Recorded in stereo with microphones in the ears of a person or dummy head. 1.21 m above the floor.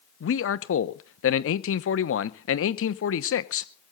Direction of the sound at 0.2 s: 70° left (ahead or behind).